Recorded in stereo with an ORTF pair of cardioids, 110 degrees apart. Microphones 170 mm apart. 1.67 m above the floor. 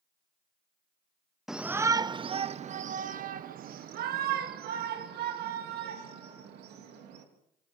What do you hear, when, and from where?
1.5 s a shout: straight ahead, 0.8 m; by 7.2 s 75° right, 3.5 m